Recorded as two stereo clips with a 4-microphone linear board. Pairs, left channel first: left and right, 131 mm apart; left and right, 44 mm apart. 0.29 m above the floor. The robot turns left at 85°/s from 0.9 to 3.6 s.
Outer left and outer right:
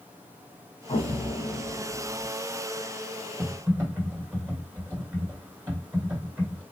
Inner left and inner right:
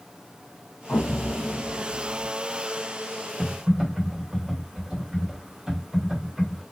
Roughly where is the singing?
No singing in this recording.